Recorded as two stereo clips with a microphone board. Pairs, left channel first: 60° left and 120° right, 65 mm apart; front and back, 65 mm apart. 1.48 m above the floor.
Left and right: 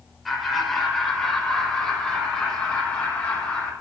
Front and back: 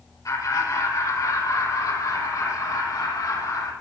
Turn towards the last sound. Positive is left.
turn(degrees=-15)